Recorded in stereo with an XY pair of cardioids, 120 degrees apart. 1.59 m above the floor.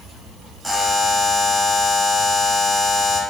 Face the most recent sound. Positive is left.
turn(degrees=-5)